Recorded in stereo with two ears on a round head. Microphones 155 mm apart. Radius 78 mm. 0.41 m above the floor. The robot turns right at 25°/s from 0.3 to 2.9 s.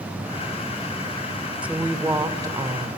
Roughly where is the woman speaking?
Behind.